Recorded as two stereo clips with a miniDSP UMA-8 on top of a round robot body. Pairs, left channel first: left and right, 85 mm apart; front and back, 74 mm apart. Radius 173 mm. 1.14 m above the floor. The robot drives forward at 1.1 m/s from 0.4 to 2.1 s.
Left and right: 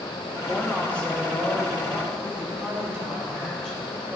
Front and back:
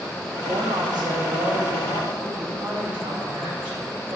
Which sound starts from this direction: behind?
A woman speaking, at 0.4 s.